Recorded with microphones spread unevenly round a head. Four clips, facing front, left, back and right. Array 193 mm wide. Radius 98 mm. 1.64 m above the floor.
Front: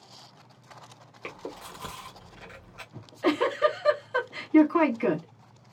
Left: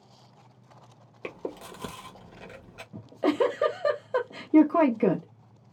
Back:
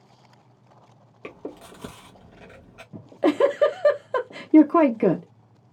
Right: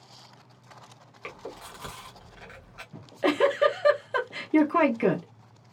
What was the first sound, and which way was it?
Chewing, 110° left.